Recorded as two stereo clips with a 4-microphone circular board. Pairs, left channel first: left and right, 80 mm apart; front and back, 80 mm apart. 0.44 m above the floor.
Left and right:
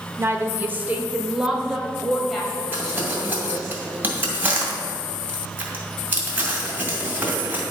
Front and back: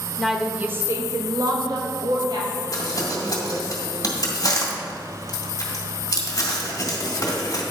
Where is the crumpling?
30° right, 2 m.